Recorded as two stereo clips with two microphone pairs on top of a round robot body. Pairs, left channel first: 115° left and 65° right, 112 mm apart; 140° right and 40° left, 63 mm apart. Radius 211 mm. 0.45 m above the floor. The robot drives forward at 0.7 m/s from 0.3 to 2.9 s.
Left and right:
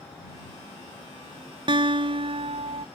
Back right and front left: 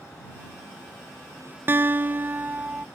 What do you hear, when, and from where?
1.7 s a guitar: 15° right; by 2.9 s 30° right